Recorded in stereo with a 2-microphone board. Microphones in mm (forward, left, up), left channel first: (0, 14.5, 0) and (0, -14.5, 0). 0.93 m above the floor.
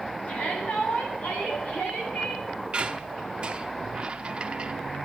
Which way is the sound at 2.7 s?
35° right (ahead or behind).